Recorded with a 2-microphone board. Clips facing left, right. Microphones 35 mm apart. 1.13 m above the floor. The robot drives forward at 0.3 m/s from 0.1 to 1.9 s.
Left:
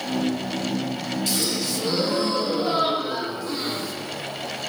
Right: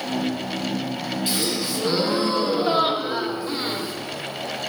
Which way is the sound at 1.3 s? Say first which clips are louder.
Right 2 dB; 20° right (ahead or behind).